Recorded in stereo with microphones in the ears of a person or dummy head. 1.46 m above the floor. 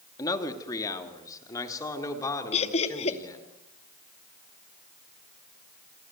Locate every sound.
0.2 s a man speaking: 20° left (ahead or behind), 3 m
2.5 s laughter: 35° left (ahead or behind), 2.5 m